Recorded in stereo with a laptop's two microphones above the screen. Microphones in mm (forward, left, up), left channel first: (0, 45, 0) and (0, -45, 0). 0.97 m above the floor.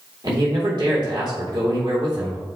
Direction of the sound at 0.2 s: 55° right (ahead or behind).